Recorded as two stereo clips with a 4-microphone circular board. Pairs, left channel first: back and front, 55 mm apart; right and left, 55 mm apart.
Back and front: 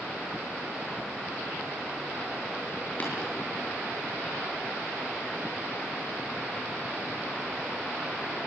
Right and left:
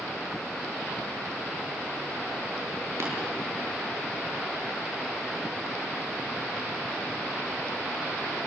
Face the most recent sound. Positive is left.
turn(degrees=120)